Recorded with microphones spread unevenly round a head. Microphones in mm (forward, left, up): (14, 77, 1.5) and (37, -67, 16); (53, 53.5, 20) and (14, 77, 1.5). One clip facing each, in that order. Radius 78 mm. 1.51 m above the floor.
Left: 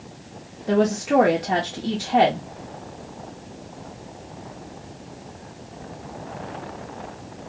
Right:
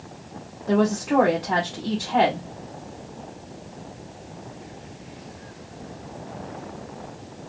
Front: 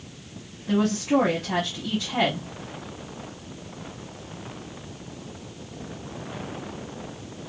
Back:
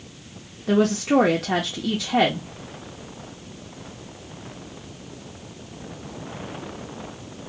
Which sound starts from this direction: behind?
A woman speaking, at 0.7 s.